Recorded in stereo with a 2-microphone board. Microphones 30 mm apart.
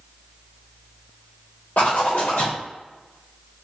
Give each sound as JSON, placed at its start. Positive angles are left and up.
{"t": 1.8, "sound": "a zipper", "side_deg": 75, "distance_m": 1.4}